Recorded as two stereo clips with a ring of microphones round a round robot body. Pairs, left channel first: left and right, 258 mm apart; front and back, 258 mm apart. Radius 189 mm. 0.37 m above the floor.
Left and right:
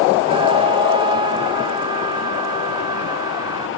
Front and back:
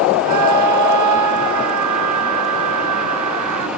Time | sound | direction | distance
0.2 | a scream | 165° right | ?